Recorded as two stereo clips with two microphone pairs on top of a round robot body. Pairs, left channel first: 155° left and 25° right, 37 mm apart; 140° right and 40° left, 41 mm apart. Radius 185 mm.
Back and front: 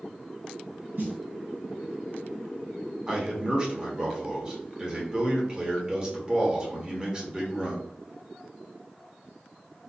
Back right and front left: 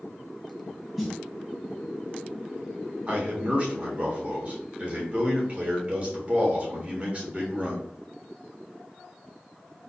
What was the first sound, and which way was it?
A snare drum, 40° right.